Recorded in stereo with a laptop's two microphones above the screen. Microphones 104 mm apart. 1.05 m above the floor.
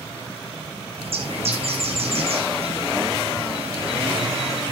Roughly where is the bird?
Right.